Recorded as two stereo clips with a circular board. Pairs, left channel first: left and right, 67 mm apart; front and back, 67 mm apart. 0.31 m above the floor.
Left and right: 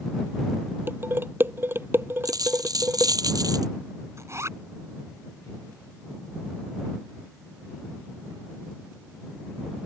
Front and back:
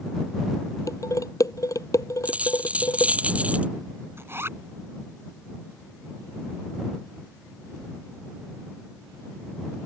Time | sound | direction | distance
0.9 | dishes clattering | 35° right | ?
2.2 | a dropped coin | 110° right | ?
4.2 | a zipper | 130° right | ?